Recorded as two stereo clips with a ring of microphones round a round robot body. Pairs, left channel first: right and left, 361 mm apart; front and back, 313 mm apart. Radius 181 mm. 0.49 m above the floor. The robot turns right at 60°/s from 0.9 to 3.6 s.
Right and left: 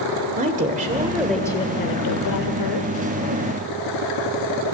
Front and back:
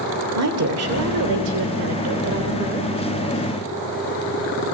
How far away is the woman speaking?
About 1.8 m.